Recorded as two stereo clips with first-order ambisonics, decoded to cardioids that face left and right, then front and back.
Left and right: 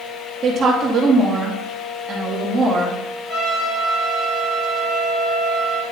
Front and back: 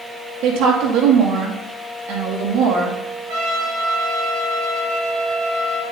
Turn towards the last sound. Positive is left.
turn(degrees=155)